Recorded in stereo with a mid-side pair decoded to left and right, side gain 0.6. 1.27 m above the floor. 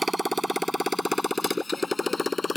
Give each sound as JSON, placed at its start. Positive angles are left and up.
{"t": 0.0, "sound": "a motorcycle", "azimuth_deg": -15}